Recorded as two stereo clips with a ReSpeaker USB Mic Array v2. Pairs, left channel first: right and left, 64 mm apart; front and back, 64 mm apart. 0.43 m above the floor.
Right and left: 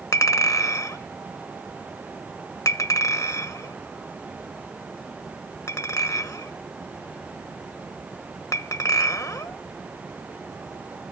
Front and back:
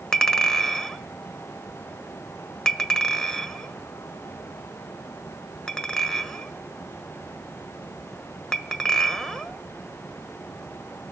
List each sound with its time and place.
0.1 s a clink: 85° right, 1.2 m